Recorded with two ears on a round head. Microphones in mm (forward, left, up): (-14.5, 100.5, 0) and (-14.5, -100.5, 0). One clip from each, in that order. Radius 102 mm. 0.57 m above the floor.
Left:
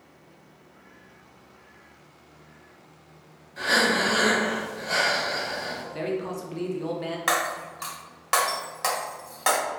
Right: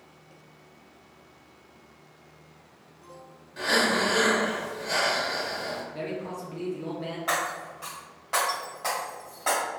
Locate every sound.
3.6 s breathing: 15° right (ahead or behind), 1.0 m
5.9 s a man speaking: 20° left (ahead or behind), 0.6 m
7.3 s breaking glass: 65° left (ahead or behind), 1.5 m